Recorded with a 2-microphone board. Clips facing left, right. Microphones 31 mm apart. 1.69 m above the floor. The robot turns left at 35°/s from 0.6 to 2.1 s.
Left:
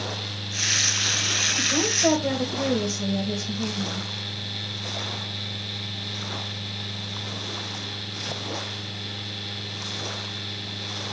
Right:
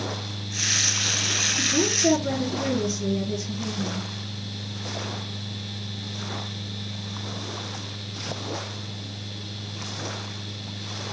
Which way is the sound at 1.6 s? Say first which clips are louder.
Even; 55° left (ahead or behind).